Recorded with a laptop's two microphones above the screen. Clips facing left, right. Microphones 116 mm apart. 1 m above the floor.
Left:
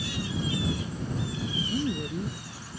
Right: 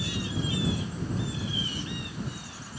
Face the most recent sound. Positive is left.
turn(degrees=60)  # may be behind; listen again after turning